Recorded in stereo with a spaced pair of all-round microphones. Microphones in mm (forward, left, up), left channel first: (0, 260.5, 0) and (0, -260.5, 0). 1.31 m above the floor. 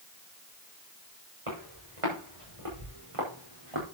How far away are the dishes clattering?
No dishes clattering in this recording.